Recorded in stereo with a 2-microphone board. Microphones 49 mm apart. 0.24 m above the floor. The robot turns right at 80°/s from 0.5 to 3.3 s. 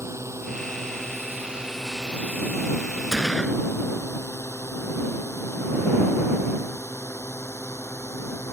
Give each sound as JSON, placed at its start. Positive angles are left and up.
{"t": 0.0, "sound": "a drone", "side_deg": -70}
{"t": 3.1, "sound": "a gunshot", "side_deg": -10}